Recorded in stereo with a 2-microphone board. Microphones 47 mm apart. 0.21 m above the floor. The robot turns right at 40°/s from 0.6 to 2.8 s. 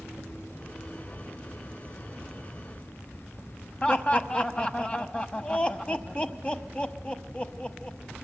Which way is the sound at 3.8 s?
25° left (ahead or behind).